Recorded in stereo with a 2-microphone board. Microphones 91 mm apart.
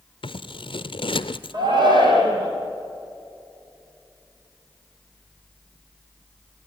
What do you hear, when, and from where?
0.2 s scissors: 70° left (ahead or behind), 0.6 m
1.5 s a shout: 55° right (ahead or behind), 4.5 m